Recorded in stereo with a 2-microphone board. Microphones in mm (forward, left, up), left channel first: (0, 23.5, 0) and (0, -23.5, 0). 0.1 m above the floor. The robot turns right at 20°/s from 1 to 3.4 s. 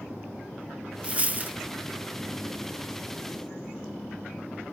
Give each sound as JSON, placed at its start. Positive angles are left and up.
{"t": 1.0, "sound": "a dropped coin", "side_deg": -30, "distance_m": 0.5}